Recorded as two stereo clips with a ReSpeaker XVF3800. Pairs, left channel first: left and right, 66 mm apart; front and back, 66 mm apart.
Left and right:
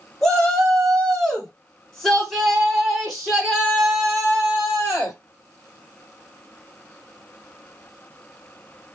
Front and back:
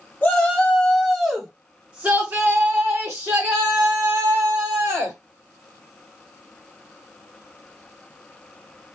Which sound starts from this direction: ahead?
A shout, at 0.2 s.